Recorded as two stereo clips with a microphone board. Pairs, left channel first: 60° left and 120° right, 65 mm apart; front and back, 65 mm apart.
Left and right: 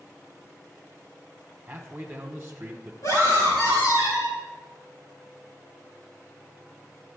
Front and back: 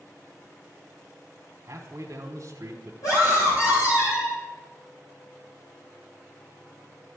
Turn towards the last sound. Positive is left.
turn(degrees=25)